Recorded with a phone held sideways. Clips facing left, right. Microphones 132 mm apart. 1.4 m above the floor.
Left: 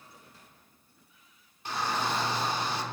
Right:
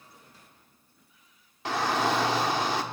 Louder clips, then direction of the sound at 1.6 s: Right 5 dB; 80° right.